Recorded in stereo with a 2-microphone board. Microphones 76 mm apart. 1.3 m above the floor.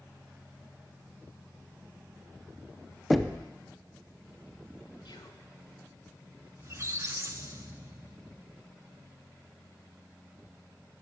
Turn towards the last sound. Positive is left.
turn(degrees=-35)  # may be behind; listen again after turning